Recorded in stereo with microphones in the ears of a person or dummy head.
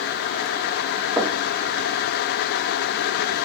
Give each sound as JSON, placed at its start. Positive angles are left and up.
{"t": 1.2, "sound": "knocking", "side_deg": -15, "distance_m": 1.0}